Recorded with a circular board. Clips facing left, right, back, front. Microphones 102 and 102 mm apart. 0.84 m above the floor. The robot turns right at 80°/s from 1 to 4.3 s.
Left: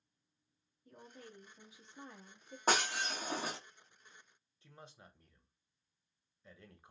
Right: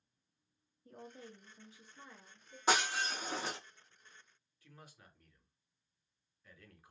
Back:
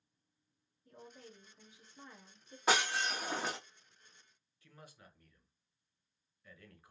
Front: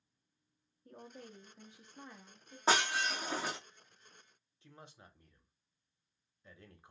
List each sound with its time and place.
0.8 s a woman speaking: 45° right, 1.1 m; by 2.6 s 85° left, 1.1 m
2.7 s breaking glass: 55° left, 1.8 m; by 3.6 s 130° left, 1.8 m
4.6 s a man speaking: 45° left, 0.8 m